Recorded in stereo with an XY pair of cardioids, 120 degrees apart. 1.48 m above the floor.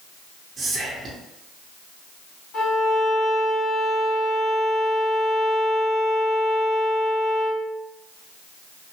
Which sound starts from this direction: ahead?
Whispering, at 0.6 s.